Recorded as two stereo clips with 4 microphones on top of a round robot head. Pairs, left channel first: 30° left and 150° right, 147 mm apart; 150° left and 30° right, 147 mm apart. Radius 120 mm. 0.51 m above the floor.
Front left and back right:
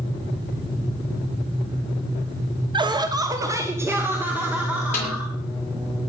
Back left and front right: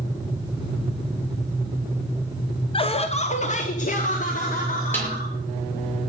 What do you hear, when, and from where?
2.7 s laughter: 175° left, 1.1 m; by 5.3 s 130° left, 2.5 m
4.9 s a snare drum: 75° left, 7 m